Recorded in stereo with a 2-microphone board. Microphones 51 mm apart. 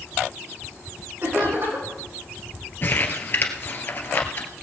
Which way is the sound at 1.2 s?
45° right (ahead or behind).